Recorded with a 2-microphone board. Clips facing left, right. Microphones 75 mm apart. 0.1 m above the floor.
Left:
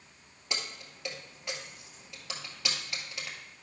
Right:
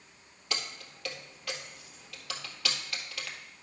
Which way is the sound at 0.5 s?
20° left (ahead or behind).